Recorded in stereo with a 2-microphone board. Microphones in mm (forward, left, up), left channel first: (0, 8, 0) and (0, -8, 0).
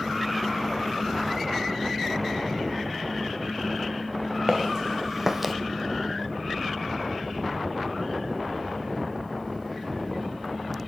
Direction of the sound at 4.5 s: 40° right (ahead or behind).